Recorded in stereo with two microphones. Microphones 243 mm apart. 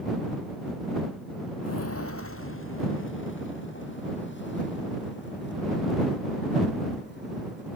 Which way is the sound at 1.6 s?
90° left.